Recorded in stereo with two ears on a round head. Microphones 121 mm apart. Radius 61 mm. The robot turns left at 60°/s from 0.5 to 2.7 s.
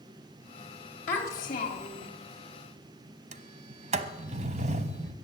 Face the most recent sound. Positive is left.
turn(degrees=-55)  # may be behind; listen again after turning